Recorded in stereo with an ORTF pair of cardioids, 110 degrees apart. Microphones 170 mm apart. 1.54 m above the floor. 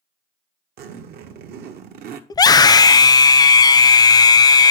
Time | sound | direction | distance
0.8 | a zipper | 70° right | 1.1 m
2.3 | a scream | 25° left | 0.6 m